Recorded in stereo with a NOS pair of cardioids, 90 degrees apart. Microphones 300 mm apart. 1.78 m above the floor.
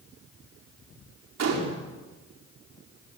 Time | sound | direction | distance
1.4 | a gunshot | 55° right | 5.5 m